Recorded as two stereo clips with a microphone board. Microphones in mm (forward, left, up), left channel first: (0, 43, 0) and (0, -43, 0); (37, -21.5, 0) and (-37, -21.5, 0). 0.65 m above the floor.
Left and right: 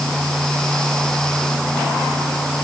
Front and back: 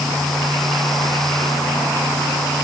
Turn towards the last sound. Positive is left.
No sound to turn to.